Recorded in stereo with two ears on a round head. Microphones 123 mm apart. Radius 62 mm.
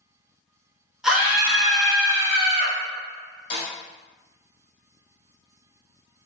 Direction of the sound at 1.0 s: 5° right (ahead or behind).